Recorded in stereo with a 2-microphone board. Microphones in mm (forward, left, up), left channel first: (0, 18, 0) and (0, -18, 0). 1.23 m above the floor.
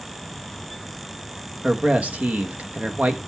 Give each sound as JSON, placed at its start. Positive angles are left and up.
{"t": 1.6, "sound": "a man speaking", "side_deg": -40, "distance_m": 1.3}